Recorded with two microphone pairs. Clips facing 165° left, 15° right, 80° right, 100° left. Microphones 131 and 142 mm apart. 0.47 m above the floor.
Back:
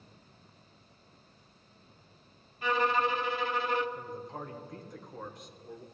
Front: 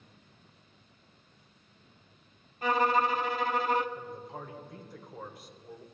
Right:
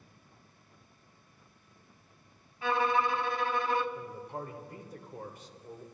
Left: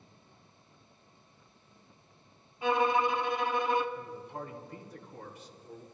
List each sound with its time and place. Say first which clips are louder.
2.6 s a violin: front 2 dB, left 2 dB; 30° left, 0.9 m
4.0 s a man speaking: back 1 dB, right 1 dB; 95° right, 2 m